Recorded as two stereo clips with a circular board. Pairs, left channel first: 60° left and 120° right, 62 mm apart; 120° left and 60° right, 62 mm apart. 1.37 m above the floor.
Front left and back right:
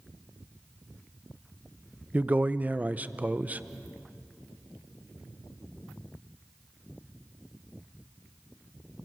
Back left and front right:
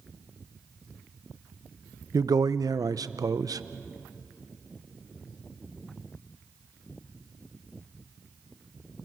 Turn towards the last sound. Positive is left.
turn(degrees=-60)